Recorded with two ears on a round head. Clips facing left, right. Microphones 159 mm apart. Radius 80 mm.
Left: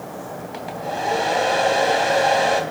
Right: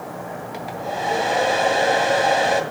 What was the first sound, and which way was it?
A hair dryer, 5° right (ahead or behind).